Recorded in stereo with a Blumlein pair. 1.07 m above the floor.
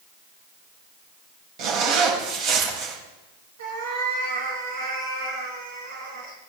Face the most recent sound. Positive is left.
turn(degrees=-60)